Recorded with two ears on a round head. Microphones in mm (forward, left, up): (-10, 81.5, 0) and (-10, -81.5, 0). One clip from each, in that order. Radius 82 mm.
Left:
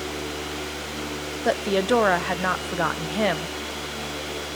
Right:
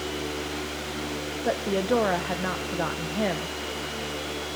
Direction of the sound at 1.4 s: 45° left (ahead or behind).